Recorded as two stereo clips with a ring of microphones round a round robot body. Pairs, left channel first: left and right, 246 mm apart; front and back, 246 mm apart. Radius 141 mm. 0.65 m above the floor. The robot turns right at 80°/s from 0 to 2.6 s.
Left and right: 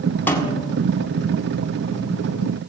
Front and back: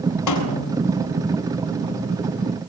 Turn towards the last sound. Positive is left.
turn(degrees=-165)